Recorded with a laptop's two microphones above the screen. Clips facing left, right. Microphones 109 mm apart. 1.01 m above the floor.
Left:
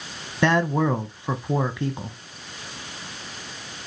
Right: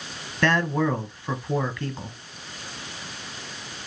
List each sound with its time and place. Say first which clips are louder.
0.4 s a man speaking: left 2 dB; 15° left (ahead or behind), 0.9 m